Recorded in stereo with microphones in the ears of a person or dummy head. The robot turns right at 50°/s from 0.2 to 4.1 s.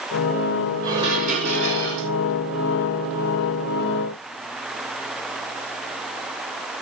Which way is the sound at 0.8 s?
165° right.